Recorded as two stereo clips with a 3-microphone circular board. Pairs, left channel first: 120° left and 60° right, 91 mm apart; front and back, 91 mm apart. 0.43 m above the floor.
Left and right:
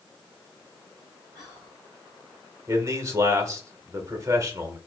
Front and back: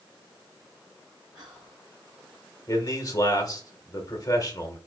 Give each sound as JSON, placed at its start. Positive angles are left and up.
{"t": 1.4, "sound": "whispering", "azimuth_deg": -140, "distance_m": 2.0}
{"t": 2.7, "sound": "a man speaking", "azimuth_deg": -25, "distance_m": 1.0}